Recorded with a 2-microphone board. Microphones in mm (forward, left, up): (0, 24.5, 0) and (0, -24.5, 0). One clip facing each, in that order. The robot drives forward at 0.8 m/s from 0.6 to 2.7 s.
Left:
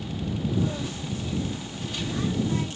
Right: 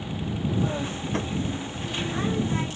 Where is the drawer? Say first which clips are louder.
Right 5 dB; 80° right.